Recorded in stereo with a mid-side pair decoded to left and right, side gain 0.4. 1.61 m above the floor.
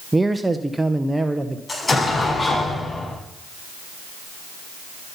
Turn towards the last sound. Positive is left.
turn(degrees=25)